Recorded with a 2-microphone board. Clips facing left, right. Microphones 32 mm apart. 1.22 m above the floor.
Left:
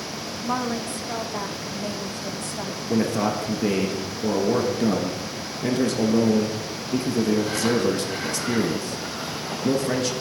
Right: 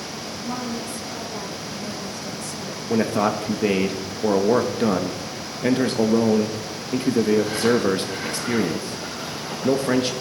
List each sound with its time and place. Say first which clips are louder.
0.4 s a woman speaking: left 4 dB; 45° left (ahead or behind), 1.6 m
2.9 s a man speaking: right 2 dB; 30° right (ahead or behind), 1.1 m